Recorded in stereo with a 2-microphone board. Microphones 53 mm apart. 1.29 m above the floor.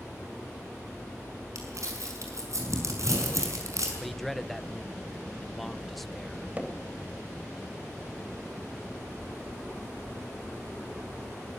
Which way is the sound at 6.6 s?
25° right (ahead or behind).